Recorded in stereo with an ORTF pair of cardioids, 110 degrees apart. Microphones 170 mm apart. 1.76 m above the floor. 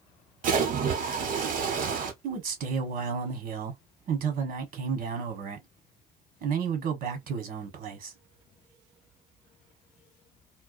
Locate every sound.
0.4 s a splash: 50° right, 1.1 m
2.2 s a man speaking: 60° right, 1.3 m